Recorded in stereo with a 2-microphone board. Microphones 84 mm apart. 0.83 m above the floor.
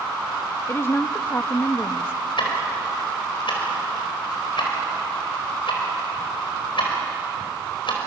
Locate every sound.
0.7 s a woman speaking: 30° left (ahead or behind), 0.6 m
2.4 s ticking: 80° left, 4.5 m